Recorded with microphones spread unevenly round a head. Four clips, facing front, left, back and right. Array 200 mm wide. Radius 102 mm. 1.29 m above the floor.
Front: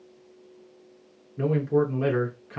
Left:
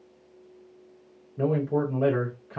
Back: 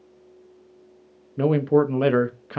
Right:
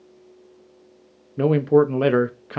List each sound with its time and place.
1.4 s a man speaking: 105° right, 0.5 m